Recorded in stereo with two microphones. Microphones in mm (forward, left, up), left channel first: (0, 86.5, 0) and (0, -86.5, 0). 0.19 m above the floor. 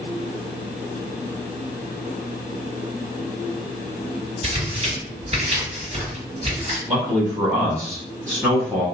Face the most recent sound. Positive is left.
turn(degrees=-15)  # may be behind; listen again after turning